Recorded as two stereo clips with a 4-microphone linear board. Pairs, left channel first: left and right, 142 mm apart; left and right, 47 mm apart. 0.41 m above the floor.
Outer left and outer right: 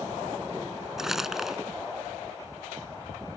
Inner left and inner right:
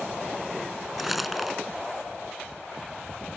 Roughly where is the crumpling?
Centre.